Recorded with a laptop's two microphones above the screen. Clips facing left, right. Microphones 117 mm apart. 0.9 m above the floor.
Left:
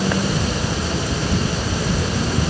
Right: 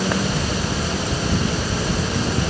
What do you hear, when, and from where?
Only background noise.